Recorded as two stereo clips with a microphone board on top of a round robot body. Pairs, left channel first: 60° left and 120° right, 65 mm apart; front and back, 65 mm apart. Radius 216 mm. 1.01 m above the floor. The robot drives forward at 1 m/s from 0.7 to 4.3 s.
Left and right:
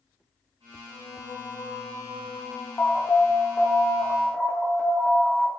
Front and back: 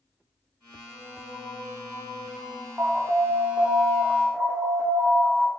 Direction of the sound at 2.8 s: 115° left.